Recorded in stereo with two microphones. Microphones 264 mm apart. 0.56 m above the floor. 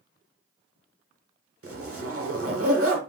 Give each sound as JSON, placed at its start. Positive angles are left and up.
{"t": 1.6, "sound": "a zipper", "side_deg": -55, "distance_m": 1.0}